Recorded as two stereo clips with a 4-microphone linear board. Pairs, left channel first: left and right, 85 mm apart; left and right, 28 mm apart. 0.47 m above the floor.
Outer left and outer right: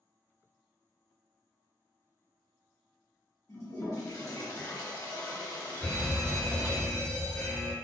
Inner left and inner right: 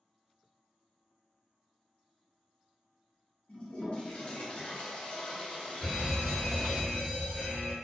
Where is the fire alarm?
20° left (ahead or behind), 1.7 m.